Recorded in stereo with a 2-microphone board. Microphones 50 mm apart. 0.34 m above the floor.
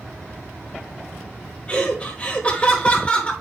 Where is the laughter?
25° left (ahead or behind), 1.4 m.